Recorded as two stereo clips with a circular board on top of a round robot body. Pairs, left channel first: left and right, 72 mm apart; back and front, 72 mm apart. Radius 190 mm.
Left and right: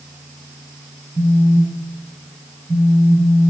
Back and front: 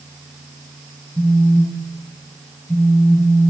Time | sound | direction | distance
1.1 | a phone buzzing | 70° right | 1.9 m